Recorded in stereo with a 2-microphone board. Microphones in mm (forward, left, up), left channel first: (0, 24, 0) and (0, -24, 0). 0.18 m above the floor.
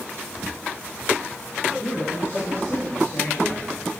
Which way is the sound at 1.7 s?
50° left (ahead or behind).